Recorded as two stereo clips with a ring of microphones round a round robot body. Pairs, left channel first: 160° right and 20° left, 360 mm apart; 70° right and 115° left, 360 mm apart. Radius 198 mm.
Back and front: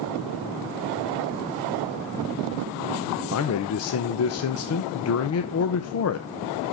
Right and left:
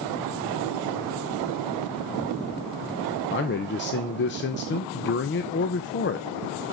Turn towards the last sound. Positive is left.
turn(degrees=-120)